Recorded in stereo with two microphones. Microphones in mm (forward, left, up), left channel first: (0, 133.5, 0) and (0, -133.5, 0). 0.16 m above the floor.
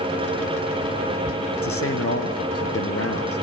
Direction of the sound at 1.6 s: 55° left (ahead or behind).